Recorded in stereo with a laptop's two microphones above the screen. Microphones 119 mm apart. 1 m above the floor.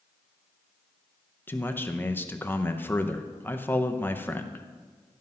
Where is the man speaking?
20° left (ahead or behind), 0.6 m.